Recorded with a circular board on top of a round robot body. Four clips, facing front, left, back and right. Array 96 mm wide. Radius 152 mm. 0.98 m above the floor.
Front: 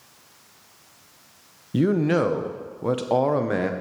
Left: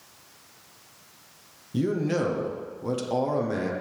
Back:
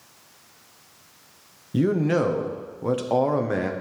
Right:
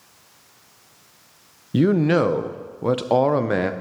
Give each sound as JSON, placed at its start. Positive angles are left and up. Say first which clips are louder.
{"t": 1.7, "sound": "a man speaking", "louder": "right 8 dB, front 1 dB", "azimuth_deg": -80, "distance_m": 0.7}